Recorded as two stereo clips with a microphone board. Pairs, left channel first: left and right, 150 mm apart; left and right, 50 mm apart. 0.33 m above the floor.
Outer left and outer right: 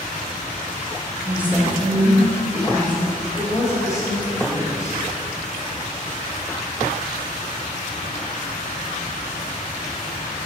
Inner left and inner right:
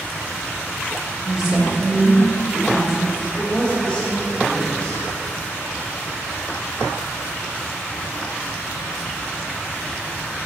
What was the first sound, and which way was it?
A woman speaking, 10° right (ahead or behind).